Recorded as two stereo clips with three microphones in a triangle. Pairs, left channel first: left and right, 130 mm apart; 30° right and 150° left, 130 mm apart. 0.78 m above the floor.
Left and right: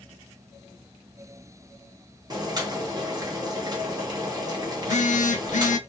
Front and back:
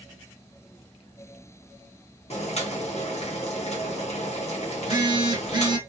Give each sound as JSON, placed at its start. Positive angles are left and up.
{"t": 2.3, "sound": "boiling", "azimuth_deg": -40, "distance_m": 1.2}
{"t": 4.8, "sound": "a phone buzzing", "azimuth_deg": 100, "distance_m": 0.7}